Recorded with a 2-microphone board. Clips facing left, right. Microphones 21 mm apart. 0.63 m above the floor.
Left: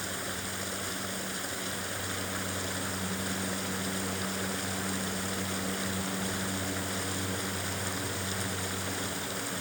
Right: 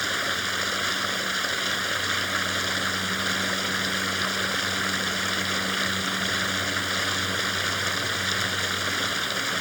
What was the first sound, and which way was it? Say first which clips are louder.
Running water: right 10 dB; 45° right (ahead or behind).